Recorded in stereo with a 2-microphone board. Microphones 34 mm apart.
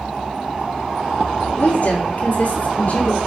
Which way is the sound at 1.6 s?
55° left (ahead or behind).